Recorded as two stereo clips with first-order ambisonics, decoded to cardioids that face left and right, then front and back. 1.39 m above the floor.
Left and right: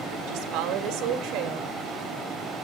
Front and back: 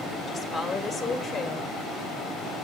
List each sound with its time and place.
0.3 s a woman speaking: 80° right, 1.9 m